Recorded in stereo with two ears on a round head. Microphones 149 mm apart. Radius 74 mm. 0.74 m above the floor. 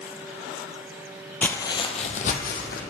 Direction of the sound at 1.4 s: 10° left (ahead or behind).